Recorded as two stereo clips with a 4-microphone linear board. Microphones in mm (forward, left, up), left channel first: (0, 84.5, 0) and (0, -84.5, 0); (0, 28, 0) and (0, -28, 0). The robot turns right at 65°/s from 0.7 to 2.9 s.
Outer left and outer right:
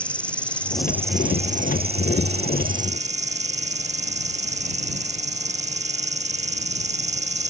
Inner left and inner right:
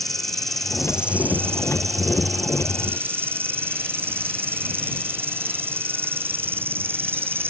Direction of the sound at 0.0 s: 175° left.